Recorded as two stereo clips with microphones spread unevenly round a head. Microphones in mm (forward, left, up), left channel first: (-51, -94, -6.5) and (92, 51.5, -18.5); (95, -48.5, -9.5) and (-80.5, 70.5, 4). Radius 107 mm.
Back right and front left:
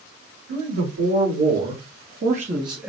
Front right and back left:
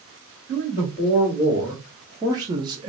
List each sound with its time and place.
0.5 s a man speaking: 65° left, 2 m; by 2.9 s 115° left, 0.7 m